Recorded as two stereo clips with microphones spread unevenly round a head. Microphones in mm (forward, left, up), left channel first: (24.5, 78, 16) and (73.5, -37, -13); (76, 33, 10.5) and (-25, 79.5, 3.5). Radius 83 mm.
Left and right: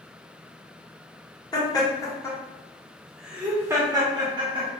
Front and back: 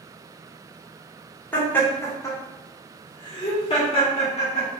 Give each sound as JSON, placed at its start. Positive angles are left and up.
{"t": 1.5, "sound": "laughter", "azimuth_deg": 50, "distance_m": 1.4}